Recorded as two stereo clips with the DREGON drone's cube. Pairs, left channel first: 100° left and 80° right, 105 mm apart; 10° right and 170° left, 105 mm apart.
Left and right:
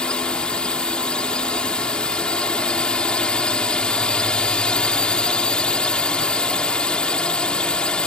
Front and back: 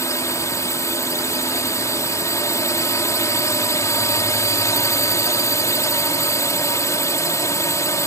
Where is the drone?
25° left.